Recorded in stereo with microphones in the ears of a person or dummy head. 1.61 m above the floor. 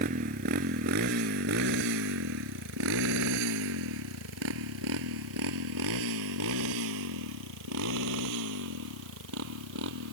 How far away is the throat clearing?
I don't hear throat clearing.